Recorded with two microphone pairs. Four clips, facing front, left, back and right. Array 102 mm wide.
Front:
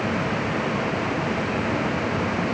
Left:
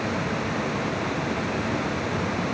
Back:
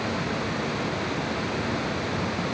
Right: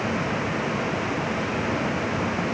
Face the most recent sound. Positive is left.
No sound to turn to.